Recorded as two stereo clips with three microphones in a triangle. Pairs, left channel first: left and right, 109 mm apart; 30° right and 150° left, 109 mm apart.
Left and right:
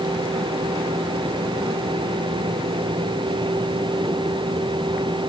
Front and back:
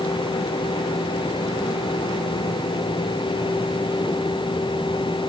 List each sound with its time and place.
Only background noise.